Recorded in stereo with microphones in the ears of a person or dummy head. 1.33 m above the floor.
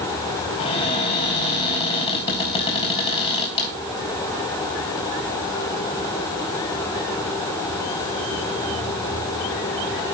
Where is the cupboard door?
30° left (ahead or behind), 4.5 m.